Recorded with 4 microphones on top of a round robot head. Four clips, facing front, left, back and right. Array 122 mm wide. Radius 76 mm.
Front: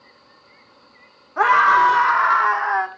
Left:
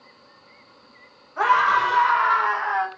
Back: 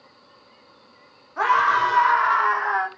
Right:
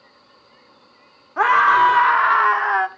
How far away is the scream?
About 2 m.